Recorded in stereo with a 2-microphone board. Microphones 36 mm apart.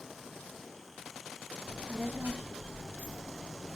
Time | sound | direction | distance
1.6 | a child speaking | 65° right (ahead or behind) | 1.9 m